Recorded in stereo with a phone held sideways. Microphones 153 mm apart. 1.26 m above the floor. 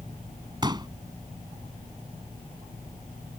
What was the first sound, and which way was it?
A pop, 30° right (ahead or behind).